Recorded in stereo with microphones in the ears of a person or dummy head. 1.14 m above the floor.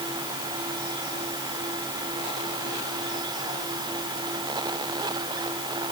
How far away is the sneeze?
No sneeze in this recording.